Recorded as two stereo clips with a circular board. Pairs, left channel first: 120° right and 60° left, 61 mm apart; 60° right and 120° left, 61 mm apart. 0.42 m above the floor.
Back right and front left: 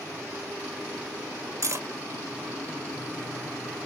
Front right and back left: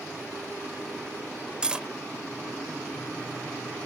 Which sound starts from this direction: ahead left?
Cutlery clinking, at 1.6 s.